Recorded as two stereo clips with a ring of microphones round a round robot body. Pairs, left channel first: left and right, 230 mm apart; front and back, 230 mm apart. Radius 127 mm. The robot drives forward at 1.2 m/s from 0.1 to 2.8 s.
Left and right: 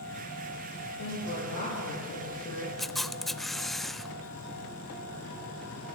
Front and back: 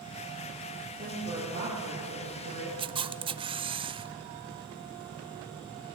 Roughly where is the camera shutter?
Behind.